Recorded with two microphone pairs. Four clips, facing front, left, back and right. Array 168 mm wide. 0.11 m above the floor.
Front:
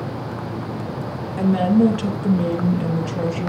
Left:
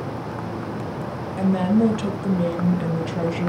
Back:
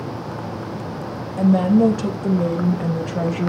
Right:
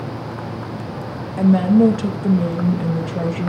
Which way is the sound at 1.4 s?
85° right.